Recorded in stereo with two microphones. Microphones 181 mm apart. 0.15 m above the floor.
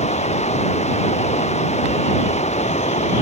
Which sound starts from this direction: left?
Running water, at 0.0 s.